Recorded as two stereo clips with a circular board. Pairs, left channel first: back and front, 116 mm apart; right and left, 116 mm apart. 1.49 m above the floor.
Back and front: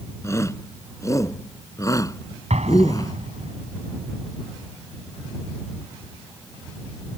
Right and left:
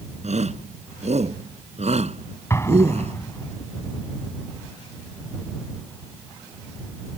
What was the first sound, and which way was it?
A shout, 115° left.